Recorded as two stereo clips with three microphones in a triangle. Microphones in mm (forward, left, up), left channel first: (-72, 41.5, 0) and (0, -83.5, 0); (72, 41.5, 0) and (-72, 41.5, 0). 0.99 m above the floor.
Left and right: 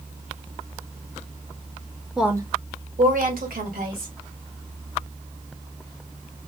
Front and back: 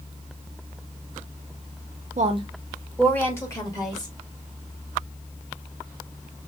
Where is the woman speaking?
150° right, 0.7 m; by 4.1 s 60° right, 2 m.